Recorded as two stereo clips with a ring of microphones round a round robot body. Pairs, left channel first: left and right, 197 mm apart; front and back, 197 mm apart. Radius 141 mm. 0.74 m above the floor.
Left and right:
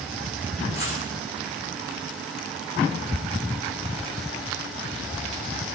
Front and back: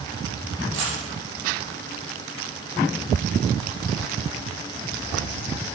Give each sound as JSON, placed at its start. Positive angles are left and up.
{"t": 0.7, "sound": "a dropped coin", "azimuth_deg": 160, "distance_m": 6.5}